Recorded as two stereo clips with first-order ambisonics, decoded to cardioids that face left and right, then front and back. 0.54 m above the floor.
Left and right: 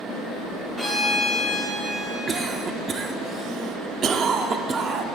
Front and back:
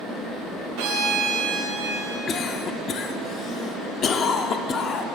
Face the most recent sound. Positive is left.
turn(degrees=-35)